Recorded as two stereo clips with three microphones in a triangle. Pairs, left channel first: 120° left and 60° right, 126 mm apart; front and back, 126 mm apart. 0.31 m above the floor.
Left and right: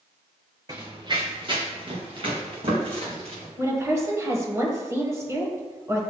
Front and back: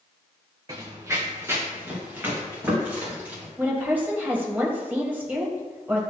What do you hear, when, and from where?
0.7 s running footsteps: 120° right, 1.0 m; by 3.5 s 105° right, 4 m
3.6 s a woman speaking: 115° right, 1.5 m